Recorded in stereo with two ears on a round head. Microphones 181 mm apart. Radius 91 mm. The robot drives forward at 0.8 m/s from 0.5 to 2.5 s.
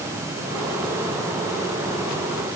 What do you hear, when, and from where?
Only background noise.